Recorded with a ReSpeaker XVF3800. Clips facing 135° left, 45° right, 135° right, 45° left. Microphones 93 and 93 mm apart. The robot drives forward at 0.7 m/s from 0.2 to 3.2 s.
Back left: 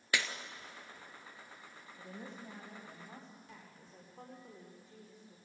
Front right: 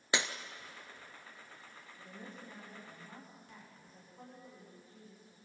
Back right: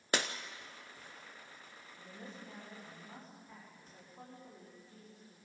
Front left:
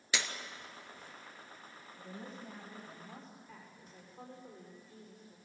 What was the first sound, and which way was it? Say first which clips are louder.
Breaking glass: front right 1 dB, back right 3 dB; 105° right.